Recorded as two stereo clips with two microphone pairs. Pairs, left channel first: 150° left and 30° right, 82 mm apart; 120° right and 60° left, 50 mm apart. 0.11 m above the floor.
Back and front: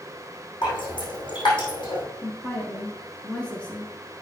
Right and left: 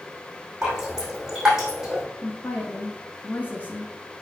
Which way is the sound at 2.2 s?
140° right.